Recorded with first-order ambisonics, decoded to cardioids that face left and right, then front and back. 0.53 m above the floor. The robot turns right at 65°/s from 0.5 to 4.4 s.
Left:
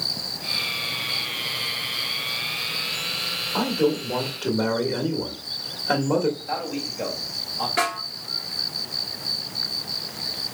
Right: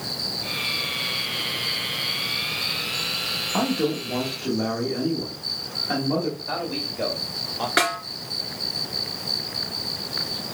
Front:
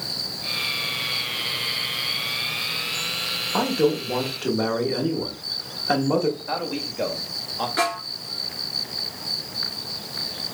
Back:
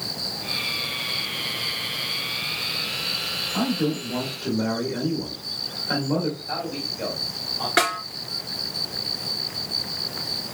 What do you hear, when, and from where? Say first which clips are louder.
3.5 s a man speaking: left 4 dB, front 4 dB; 25° right, 1.3 m; by 6.3 s 35° left, 1.3 m
6.4 s a man speaking: right 1 dB, front 1 dB; 30° right, 1.9 m
7.8 s a snare drum: right 4 dB, back 3 dB; 130° right, 1.8 m